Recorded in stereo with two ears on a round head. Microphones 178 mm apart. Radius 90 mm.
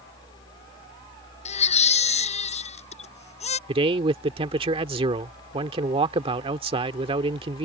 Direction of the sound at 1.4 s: 35° left (ahead or behind).